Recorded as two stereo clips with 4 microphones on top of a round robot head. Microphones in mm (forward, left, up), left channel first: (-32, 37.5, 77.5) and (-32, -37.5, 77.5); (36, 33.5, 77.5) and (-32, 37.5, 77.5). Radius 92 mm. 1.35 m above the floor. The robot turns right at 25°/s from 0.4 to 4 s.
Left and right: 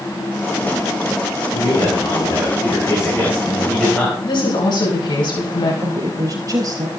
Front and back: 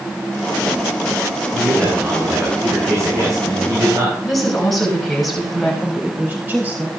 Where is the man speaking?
105° left, 5.5 m; by 4.1 s 165° left, 5.5 m.